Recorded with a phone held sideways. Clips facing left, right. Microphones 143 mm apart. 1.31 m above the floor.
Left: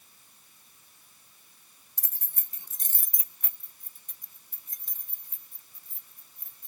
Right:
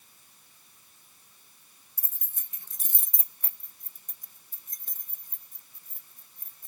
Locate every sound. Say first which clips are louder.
2.0 s keys jangling: left 5 dB; 75° left (ahead or behind); by 6.7 s 50° right (ahead or behind)